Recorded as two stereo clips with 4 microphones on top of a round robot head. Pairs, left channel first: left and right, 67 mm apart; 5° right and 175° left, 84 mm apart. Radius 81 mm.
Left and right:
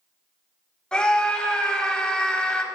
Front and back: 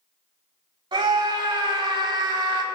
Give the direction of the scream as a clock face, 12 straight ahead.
6 o'clock.